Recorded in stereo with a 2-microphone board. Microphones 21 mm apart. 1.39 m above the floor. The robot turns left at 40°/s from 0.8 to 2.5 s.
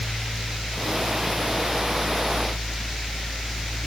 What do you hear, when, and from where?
Only background noise.